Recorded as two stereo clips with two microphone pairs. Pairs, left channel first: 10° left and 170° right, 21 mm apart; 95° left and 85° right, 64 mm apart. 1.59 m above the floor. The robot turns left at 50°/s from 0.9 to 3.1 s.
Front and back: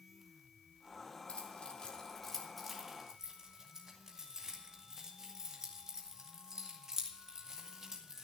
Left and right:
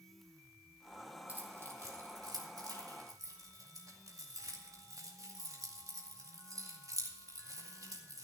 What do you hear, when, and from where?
1.3 s keys jangling: 20° right, 2 m; by 8.2 s 110° right, 2 m